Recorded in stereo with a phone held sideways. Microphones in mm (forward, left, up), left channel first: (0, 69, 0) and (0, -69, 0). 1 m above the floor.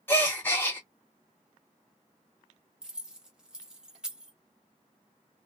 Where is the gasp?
15° left (ahead or behind), 0.8 m.